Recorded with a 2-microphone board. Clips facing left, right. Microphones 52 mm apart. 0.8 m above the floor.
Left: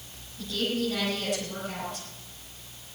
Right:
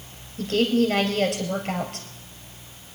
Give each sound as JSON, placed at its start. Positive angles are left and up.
{"t": 0.4, "sound": "a woman speaking", "side_deg": -70, "distance_m": 5.0}